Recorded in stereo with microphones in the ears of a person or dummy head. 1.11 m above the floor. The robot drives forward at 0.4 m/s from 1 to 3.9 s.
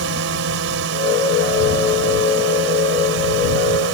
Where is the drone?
70° right (ahead or behind); by 3.9 s 65° right (ahead or behind).